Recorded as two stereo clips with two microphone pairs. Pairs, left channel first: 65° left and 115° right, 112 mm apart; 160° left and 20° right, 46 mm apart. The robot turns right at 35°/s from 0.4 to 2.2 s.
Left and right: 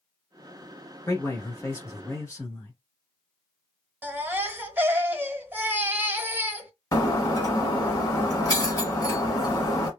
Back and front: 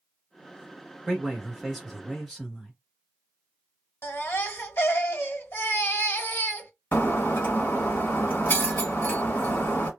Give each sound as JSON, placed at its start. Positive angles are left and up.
{"t": 1.1, "sound": "a man speaking", "azimuth_deg": 40, "distance_m": 1.2}
{"t": 4.0, "sound": "a baby crying", "azimuth_deg": 175, "distance_m": 0.9}
{"t": 6.9, "sound": "breaking glass", "azimuth_deg": 120, "distance_m": 1.1}